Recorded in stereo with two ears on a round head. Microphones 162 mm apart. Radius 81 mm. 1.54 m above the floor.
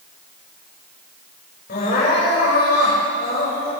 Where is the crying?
60° left (ahead or behind), 6 m.